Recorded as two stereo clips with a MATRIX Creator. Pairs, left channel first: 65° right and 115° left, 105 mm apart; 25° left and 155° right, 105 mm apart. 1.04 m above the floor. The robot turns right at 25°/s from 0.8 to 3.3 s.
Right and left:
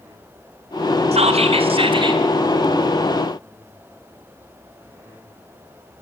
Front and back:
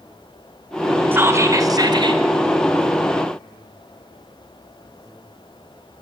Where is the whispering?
130° left, 3 m; by 2.2 s 160° left, 3 m.